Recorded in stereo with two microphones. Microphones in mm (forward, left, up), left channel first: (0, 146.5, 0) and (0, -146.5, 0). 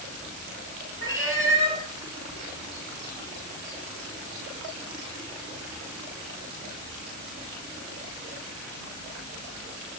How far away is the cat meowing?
About 3 m.